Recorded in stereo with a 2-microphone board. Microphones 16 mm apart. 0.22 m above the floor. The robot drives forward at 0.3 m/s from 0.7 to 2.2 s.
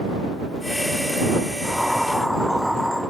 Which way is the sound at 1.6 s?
10° right (ahead or behind).